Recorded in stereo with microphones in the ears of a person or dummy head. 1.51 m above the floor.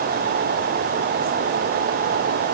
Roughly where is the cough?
I don't hear a cough.